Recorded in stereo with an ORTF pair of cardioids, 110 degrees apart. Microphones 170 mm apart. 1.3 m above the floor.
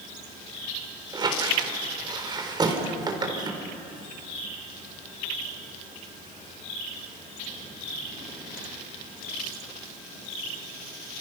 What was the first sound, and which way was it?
A squeak, 25° right.